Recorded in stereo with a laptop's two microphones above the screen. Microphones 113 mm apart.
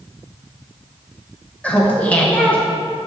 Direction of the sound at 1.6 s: 10° left (ahead or behind).